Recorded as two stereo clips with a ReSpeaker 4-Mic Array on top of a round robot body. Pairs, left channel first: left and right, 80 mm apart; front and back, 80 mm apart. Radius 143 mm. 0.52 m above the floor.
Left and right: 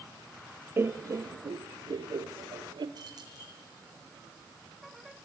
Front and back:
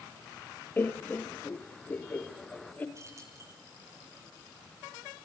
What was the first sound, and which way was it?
Laughter, 50° right.